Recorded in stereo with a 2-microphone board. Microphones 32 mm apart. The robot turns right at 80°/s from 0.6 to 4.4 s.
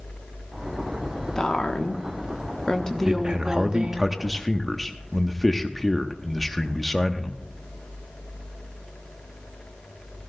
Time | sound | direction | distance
1.4 | a woman speaking | 30° left | 0.9 m
3.0 | a man speaking | 25° right (ahead or behind) | 0.9 m